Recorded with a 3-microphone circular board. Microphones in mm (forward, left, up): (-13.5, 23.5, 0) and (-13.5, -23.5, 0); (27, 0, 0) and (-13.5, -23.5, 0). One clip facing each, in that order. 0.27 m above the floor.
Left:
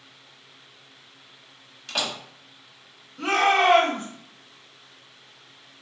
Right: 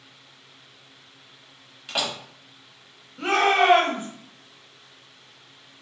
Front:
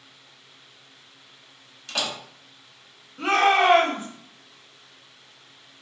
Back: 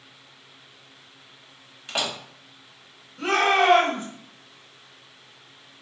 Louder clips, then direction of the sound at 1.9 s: Right 1 dB, back 1 dB; 150° right.